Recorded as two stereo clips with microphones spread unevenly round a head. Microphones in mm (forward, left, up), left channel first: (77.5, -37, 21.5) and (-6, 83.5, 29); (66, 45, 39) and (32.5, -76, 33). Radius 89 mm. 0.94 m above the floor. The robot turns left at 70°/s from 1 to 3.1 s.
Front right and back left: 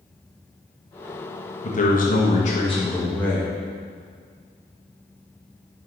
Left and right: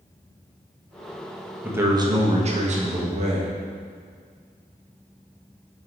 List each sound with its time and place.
1.6 s a man speaking: 30° right, 1.3 m; by 3.5 s 130° right, 1.3 m